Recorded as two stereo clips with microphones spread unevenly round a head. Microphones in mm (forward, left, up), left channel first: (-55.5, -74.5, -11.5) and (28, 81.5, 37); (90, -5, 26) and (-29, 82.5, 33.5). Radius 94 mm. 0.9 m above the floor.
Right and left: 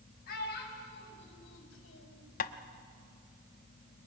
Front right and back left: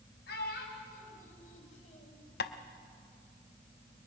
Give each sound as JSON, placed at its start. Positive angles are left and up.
{"t": 0.3, "sound": "a child speaking", "azimuth_deg": -75, "distance_m": 4.5}
{"t": 2.4, "sound": "tapping", "azimuth_deg": -75, "distance_m": 0.7}